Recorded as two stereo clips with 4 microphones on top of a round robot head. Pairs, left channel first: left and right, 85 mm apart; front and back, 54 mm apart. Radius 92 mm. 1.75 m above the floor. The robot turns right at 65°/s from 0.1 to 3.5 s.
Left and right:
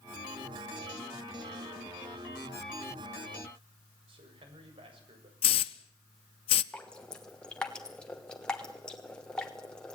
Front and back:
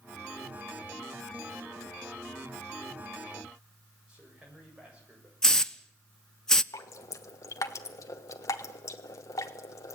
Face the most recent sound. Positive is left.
turn(degrees=10)